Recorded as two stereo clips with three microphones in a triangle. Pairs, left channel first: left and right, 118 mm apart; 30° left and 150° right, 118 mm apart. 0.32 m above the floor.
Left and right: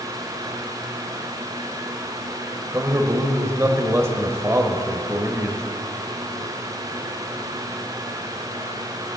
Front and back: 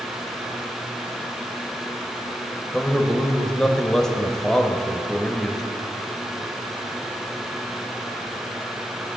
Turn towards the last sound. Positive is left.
turn(degrees=-50)